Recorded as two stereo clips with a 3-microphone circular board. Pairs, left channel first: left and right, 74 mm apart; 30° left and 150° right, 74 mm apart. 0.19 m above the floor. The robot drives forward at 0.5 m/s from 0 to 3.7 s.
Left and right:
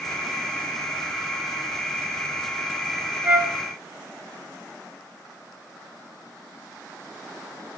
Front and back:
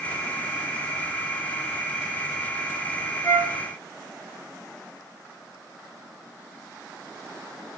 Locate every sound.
3.2 s a flute: 20° right, 3.5 m